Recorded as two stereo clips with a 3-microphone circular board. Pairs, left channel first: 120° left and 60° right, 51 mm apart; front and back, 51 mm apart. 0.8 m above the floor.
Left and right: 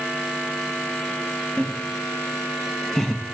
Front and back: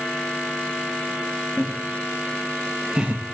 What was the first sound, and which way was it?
Laughter, 35° left.